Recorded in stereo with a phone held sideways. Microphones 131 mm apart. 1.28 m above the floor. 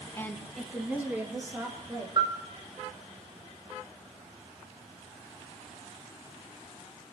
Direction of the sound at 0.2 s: 20° left (ahead or behind).